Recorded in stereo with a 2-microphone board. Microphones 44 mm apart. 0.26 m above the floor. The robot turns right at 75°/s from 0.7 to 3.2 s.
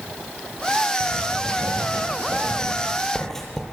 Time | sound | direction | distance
1.0 | writing | 25° right (ahead or behind) | 7 m